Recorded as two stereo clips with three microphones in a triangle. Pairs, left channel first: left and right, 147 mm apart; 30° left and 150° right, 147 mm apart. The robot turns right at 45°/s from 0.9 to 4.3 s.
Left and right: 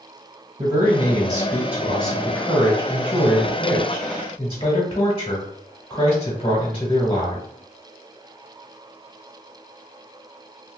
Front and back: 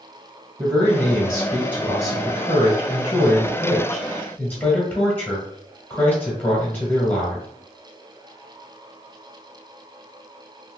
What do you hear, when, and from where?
0.6 s a man speaking: 55° right, 1.4 m; by 7.5 s 95° left, 1.4 m